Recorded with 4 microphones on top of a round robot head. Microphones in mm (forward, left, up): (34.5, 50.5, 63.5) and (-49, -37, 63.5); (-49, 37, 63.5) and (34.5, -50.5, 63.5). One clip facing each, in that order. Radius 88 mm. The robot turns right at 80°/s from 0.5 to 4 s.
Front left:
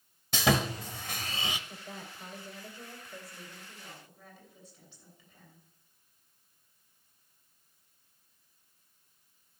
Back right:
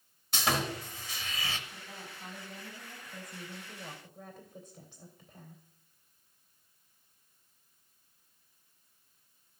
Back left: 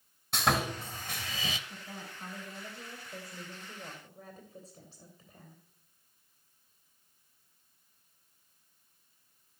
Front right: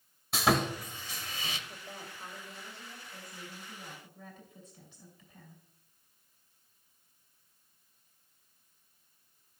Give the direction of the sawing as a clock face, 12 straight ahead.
11 o'clock.